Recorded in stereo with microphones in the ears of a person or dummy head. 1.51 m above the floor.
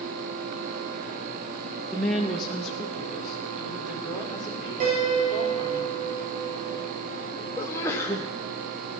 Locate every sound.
1.9 s a woman speaking: 5° left (ahead or behind), 1.0 m; by 5.8 s centre (ahead or behind), 4 m
4.8 s a piano: 50° right (ahead or behind), 6 m
7.6 s a sneeze: 15° left (ahead or behind), 0.8 m